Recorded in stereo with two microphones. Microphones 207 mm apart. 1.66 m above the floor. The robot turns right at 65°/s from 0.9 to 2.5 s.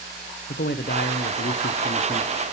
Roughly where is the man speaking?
Ahead left.